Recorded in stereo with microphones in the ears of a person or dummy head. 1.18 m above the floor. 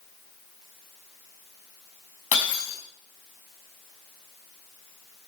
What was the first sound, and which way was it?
Breaking glass, 45° left (ahead or behind).